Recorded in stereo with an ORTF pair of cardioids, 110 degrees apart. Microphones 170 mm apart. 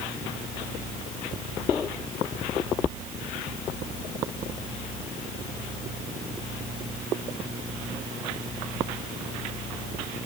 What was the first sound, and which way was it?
Only background noise.